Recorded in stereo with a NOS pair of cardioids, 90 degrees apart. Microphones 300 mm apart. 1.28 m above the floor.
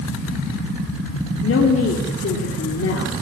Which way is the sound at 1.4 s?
45° left.